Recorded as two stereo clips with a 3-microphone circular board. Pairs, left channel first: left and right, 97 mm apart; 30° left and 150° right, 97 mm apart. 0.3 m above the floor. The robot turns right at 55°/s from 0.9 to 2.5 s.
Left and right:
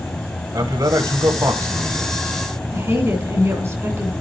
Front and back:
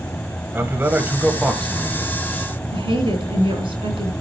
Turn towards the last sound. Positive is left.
turn(degrees=-145)